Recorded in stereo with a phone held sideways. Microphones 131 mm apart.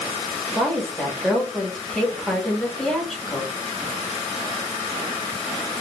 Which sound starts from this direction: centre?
A woman speaking, at 0.6 s.